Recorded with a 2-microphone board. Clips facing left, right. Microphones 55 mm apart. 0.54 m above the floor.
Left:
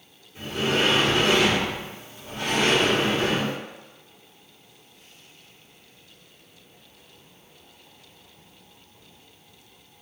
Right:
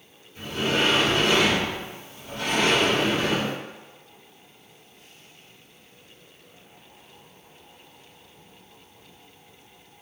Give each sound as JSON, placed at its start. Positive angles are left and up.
{"t": 0.3, "sound": "a sliding door", "side_deg": 25, "distance_m": 1.1}